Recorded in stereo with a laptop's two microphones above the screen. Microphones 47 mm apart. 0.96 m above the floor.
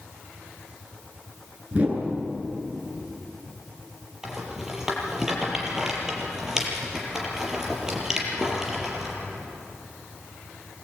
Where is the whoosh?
30° right (ahead or behind), 10 m.